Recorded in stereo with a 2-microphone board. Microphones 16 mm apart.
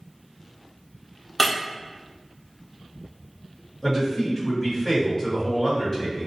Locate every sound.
1.4 s breaking glass: 15° left (ahead or behind), 0.8 m
3.8 s a man speaking: 20° left (ahead or behind), 1.2 m